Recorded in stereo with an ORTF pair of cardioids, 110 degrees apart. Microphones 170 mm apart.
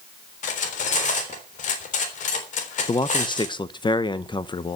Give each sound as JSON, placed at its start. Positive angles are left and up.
{"t": 0.4, "sound": "cutlery clinking", "azimuth_deg": 50, "distance_m": 3.5}
{"t": 2.9, "sound": "a man speaking", "azimuth_deg": 30, "distance_m": 1.0}